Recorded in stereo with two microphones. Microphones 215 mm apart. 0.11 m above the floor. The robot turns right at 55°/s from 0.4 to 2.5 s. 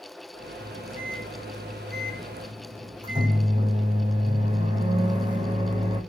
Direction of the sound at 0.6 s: 125° right.